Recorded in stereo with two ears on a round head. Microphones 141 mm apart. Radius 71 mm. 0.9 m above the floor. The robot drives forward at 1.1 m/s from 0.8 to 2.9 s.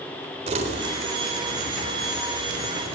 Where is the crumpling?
45° right (ahead or behind), 3.5 m; by 3.0 s 80° right, 2.5 m.